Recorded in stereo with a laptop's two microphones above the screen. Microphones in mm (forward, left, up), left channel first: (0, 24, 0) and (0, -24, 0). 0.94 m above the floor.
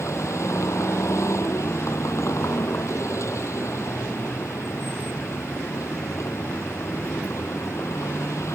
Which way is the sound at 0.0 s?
75° left (ahead or behind).